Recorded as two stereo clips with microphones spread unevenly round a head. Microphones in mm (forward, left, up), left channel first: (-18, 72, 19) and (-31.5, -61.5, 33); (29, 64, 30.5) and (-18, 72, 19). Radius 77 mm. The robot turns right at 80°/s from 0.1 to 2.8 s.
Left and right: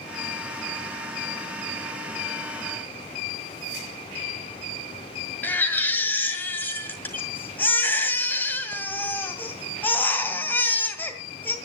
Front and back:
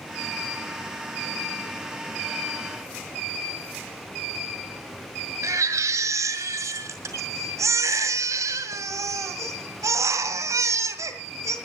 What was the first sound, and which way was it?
A baby crying, 165° left.